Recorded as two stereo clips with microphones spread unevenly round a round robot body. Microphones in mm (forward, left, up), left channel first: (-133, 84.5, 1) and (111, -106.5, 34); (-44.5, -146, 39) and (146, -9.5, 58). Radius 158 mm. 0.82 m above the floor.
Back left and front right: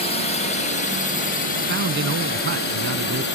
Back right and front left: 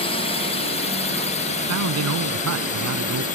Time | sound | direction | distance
0.0 | a drone | 175° right | ?
1.7 | a man speaking | 20° left | ?